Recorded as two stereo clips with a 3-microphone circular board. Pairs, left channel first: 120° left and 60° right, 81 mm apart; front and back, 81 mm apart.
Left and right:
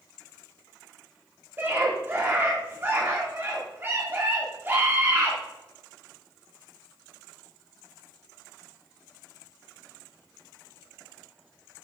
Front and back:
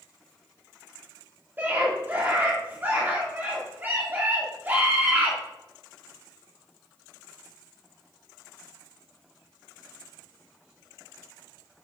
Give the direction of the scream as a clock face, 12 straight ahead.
4 o'clock.